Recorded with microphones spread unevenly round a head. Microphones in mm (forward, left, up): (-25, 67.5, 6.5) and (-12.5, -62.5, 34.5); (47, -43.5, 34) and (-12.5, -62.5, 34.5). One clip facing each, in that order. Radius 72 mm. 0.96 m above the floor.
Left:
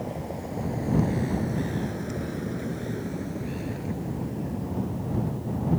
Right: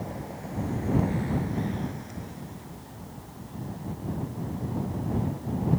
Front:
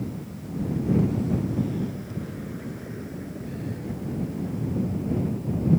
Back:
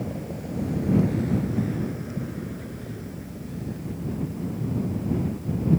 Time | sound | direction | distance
0.0 | a vehicle | 160° left | ?